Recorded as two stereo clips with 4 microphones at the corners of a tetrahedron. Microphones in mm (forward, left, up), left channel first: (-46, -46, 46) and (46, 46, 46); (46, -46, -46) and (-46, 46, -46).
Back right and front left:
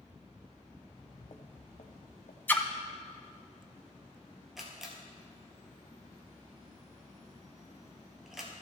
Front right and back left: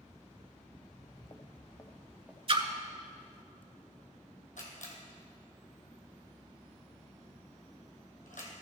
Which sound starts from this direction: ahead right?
A camera shutter, at 4.6 s.